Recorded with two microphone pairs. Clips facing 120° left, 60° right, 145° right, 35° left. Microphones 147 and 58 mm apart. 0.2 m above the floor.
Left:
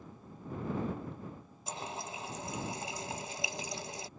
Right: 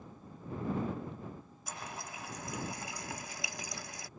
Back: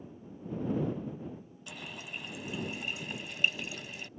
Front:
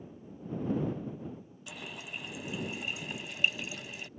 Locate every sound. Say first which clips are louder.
1.7 s a running tap: left 4 dB, even; 120° left